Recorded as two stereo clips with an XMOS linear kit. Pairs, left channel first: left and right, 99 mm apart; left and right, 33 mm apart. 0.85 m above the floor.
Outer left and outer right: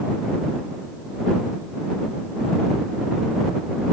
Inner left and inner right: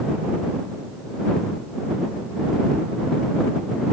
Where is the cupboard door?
I don't hear a cupboard door.